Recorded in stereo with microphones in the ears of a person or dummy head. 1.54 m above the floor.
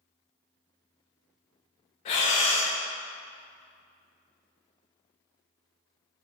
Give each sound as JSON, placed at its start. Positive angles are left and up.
{"t": 2.0, "sound": "breathing", "side_deg": 35, "distance_m": 0.5}